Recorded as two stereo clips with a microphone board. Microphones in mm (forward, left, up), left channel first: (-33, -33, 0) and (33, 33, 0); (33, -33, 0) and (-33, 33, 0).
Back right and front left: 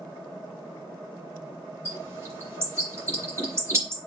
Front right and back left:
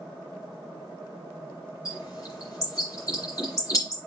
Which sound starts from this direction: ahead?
A bird, at 1.9 s.